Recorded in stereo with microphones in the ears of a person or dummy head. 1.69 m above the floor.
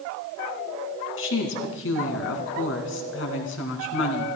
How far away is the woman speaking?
About 1.9 m.